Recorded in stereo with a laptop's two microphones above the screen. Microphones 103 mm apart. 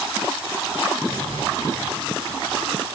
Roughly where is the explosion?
Left.